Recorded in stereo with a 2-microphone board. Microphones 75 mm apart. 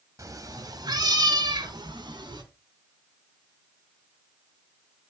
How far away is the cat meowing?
About 1.5 m.